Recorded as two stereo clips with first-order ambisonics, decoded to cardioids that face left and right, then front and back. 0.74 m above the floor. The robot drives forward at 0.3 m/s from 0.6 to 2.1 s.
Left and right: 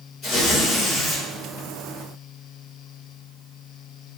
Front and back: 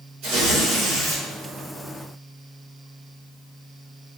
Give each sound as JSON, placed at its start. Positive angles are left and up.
{"t": 0.2, "sound": "tearing paper", "azimuth_deg": 140, "distance_m": 1.5}